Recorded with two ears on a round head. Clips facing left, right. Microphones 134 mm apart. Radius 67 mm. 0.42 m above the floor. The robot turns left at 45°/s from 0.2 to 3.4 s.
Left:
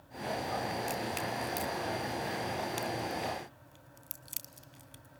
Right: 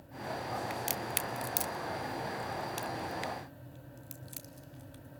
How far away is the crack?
About 0.6 m.